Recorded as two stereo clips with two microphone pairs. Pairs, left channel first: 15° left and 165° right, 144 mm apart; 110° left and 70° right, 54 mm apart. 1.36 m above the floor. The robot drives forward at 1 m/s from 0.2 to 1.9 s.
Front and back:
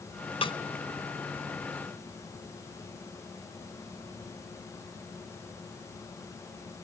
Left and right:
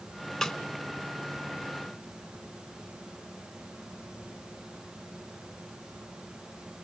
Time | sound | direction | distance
0.4 | a snare drum | 25° left | 1.3 m